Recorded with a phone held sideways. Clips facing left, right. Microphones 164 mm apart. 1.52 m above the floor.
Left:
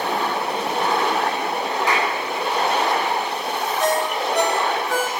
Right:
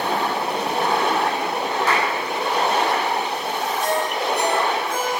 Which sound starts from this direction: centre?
A clap, at 1.9 s.